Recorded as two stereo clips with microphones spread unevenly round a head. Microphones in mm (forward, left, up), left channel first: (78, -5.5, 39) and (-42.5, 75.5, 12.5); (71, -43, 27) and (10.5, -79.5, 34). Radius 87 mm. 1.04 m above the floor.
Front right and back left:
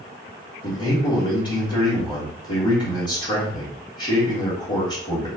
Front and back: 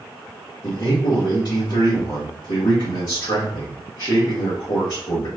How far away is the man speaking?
About 1.7 m.